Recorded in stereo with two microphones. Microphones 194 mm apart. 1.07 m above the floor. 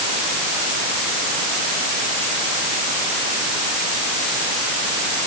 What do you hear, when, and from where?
Only background noise.